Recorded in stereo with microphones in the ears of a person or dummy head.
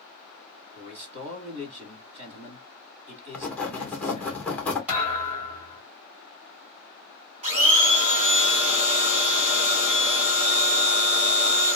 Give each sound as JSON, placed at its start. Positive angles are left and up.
{"t": 0.8, "sound": "a man speaking", "side_deg": -40, "distance_m": 0.8}
{"t": 3.3, "sound": "writing", "side_deg": 10, "distance_m": 0.9}
{"t": 4.9, "sound": "a thud", "side_deg": -10, "distance_m": 1.3}
{"t": 7.4, "sound": "a blender", "side_deg": -35, "distance_m": 1.0}